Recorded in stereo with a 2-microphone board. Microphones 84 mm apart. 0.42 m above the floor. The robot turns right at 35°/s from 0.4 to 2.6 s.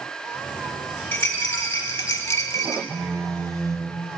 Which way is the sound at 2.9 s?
45° right (ahead or behind).